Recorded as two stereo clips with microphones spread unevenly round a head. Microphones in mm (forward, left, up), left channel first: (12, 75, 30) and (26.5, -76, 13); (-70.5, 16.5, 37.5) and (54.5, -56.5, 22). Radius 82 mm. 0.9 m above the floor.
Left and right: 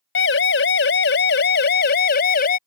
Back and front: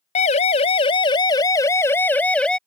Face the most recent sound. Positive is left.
turn(degrees=65)